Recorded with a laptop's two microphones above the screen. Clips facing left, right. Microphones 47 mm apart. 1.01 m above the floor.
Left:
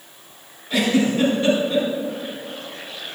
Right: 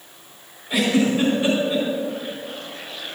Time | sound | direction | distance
0.7 | a giggle | 15° right (ahead or behind) | 4.5 m